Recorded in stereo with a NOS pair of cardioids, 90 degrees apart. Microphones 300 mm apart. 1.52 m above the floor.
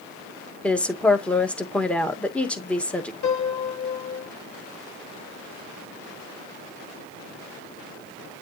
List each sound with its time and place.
0.6 s a woman speaking: 5° left, 1.9 m
3.2 s a piano: 60° left, 2.0 m